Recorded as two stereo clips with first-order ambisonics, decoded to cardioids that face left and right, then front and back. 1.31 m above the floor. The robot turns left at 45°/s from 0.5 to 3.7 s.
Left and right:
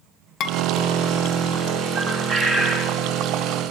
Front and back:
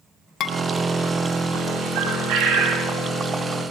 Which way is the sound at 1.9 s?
170° right.